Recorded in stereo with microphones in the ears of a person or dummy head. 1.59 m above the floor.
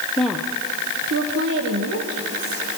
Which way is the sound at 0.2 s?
10° left (ahead or behind).